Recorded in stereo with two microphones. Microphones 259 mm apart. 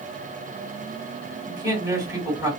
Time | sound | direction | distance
1.5 | a man speaking | 15° right (ahead or behind) | 1.8 m